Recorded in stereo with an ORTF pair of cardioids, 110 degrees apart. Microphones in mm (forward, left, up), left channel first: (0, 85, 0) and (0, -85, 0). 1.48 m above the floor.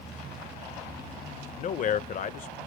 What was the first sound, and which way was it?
A man speaking, 50° left.